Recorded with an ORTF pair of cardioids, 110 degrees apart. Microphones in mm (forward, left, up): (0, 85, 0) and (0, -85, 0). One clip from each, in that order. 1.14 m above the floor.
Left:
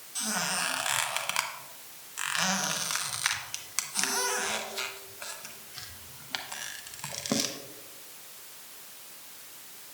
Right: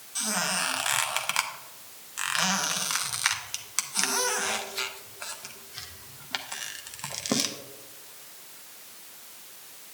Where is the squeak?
10° right, 0.7 m.